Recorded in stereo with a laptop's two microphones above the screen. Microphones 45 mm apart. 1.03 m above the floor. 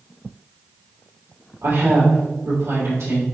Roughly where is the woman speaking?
Right.